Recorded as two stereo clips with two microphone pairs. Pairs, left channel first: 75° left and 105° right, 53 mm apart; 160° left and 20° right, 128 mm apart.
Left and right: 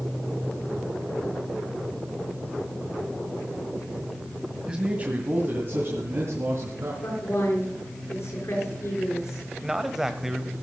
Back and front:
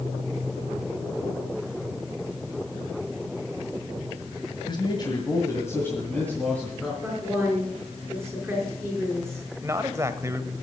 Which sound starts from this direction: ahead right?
A man speaking, at 9.6 s.